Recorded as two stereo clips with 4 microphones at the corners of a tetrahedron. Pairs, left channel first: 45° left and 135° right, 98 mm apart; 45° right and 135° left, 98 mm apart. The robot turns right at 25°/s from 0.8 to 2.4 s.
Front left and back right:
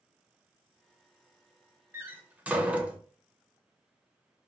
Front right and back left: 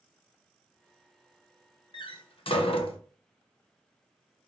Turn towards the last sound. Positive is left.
turn(degrees=-60)